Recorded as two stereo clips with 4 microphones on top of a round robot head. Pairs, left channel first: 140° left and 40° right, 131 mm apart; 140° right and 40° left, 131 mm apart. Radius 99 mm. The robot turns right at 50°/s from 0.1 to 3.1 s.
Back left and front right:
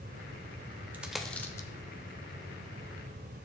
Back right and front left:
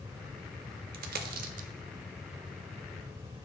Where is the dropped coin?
35° left, 0.6 m; by 1.7 s 75° left, 0.6 m.